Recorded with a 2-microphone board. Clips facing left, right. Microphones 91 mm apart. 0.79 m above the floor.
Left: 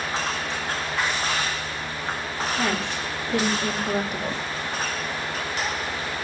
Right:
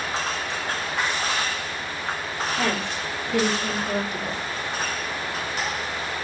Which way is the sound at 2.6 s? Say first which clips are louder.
Even; 15° left (ahead or behind).